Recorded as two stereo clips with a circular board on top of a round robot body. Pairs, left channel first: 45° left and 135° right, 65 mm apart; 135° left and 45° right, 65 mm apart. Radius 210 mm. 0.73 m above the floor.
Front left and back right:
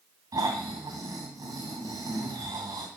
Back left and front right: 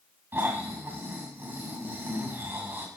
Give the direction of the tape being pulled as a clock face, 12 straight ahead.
No tape being pulled in this recording.